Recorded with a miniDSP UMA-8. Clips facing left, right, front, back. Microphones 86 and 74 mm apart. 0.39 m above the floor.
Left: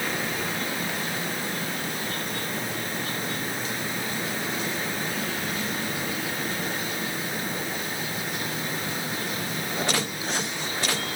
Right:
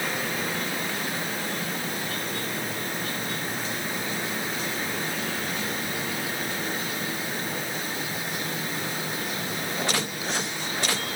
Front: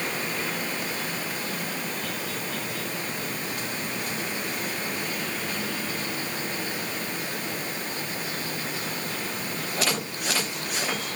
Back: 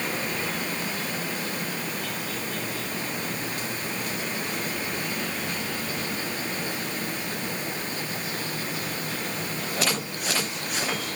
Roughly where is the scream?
No scream in this recording.